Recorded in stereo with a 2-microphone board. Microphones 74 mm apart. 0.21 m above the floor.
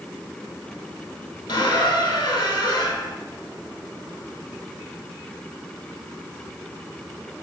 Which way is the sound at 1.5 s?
75° left (ahead or behind).